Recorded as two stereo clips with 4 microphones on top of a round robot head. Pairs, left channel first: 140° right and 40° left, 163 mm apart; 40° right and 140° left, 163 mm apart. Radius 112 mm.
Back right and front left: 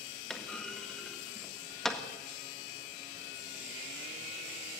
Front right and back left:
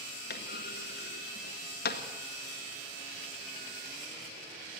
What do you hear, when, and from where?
0.3 s a clunk: 55° right, 1.7 m